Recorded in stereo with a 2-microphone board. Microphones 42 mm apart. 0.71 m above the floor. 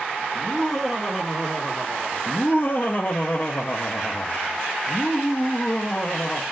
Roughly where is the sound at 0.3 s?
Centre.